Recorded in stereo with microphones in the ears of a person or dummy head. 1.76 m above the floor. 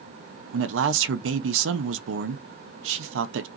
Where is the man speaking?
80° right, 0.5 m.